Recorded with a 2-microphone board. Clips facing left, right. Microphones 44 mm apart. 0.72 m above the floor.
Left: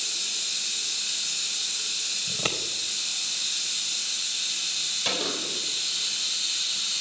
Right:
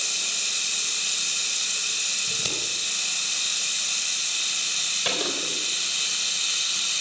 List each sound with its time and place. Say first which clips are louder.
0.0 s running water: right 3 dB; 65° right (ahead or behind), 2.5 m
2.3 s scissors: even; 35° left (ahead or behind), 2 m
5.0 s a gunshot: right 1 dB; 15° right (ahead or behind), 3.5 m